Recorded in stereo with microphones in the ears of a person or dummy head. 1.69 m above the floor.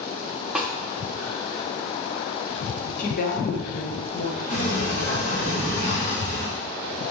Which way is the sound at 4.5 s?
40° left (ahead or behind).